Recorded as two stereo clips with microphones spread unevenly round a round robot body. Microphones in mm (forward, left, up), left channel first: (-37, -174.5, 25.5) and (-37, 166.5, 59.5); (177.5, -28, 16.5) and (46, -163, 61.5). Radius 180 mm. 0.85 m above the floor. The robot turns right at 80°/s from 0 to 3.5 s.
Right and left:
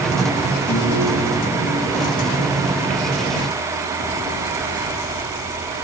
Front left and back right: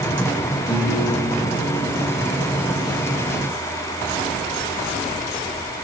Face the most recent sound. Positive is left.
turn(degrees=-160)